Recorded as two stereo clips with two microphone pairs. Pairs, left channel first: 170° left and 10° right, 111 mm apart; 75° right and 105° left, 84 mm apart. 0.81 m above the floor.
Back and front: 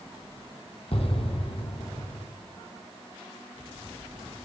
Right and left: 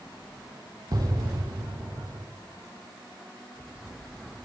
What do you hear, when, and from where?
0.9 s an explosion: 140° left, 2 m